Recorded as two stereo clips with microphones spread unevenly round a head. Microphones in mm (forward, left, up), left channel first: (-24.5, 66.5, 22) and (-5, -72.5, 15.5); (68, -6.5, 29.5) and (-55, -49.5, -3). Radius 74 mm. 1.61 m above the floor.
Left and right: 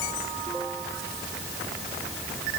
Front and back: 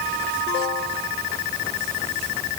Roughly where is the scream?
I don't hear a scream.